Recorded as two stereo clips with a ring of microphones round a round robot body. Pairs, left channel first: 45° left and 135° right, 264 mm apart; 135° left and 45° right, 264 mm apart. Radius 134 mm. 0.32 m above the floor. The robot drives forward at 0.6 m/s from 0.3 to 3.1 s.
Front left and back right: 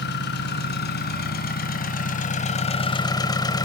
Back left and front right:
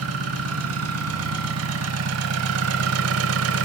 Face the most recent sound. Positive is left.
turn(degrees=-30)